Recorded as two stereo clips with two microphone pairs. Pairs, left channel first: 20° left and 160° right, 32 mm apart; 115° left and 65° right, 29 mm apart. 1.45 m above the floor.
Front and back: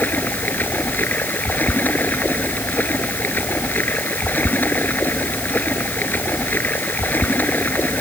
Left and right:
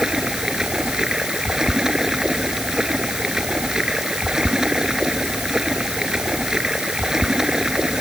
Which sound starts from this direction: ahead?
Running water, at 0.0 s.